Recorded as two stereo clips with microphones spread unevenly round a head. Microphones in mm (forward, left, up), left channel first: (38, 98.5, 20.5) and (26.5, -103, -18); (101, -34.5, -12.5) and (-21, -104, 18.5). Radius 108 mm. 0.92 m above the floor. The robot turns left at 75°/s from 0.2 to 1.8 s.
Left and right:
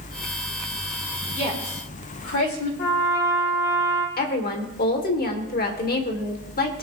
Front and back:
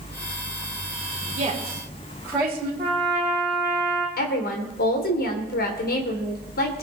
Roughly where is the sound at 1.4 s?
Behind left.